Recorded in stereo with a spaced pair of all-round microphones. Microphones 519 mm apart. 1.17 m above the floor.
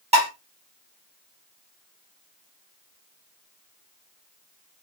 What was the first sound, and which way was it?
Dishes clattering, 10° right (ahead or behind).